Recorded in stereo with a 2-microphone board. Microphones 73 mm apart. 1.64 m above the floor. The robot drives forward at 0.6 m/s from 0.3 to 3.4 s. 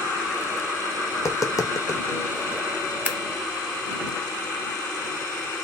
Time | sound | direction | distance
1.1 | tapping | 40° left (ahead or behind) | 0.6 m
3.0 | scissors | 25° right (ahead or behind) | 0.6 m